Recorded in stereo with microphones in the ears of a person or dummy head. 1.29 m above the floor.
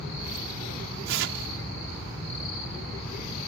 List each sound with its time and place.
1.1 s tearing paper: 65° right (ahead or behind)